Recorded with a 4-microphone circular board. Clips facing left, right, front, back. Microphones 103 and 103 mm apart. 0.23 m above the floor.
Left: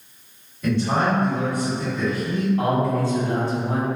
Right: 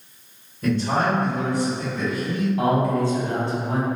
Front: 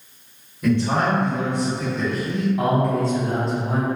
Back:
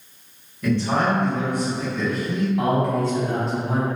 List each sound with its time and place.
0.6 s a man speaking: 70° right, 1.8 m; by 2.5 s 15° right, 1.6 m
2.6 s a man speaking: 95° right, 1.0 m